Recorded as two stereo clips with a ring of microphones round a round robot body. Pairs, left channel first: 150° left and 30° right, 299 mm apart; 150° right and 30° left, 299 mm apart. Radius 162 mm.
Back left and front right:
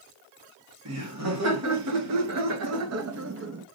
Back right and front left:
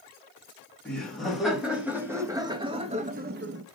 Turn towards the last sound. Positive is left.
turn(degrees=5)